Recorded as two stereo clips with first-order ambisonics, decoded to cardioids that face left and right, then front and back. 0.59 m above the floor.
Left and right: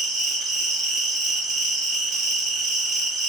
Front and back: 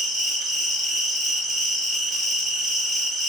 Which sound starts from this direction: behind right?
An insect, at 0.0 s.